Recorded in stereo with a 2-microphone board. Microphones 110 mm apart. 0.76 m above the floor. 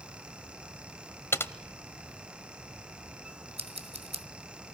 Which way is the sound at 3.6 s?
85° right.